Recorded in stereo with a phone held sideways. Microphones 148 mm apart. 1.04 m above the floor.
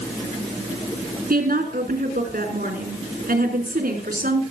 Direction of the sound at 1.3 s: 80° right.